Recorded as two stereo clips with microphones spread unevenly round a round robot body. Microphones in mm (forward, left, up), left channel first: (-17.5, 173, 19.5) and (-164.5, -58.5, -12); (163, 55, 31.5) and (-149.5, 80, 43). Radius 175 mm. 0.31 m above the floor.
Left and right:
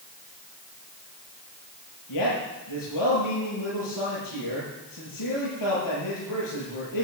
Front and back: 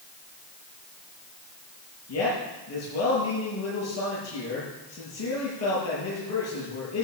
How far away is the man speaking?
About 8.5 m.